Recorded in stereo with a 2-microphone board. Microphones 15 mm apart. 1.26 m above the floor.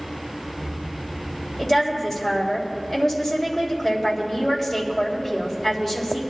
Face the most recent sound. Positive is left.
turn(degrees=10)  # may be behind; listen again after turning